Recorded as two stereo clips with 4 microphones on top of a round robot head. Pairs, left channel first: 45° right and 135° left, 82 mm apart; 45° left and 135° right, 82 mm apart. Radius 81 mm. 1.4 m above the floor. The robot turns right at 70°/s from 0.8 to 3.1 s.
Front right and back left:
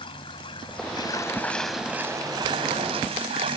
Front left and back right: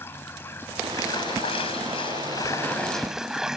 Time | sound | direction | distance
0.0 | running water | 20° right | ?